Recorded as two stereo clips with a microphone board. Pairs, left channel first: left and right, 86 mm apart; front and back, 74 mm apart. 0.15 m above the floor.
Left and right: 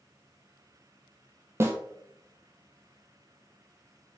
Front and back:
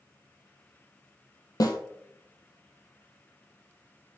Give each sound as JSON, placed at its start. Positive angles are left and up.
{"t": 1.6, "sound": "a snare drum", "azimuth_deg": -30, "distance_m": 1.3}